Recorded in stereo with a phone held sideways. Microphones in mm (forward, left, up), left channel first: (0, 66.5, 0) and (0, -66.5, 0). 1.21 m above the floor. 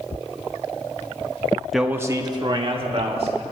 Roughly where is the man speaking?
Centre.